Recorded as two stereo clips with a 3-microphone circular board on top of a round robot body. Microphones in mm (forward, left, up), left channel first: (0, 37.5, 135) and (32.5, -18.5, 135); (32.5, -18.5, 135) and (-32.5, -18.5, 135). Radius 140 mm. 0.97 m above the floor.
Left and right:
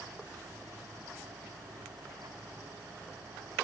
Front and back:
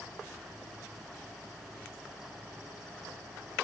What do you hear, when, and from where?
Only background noise.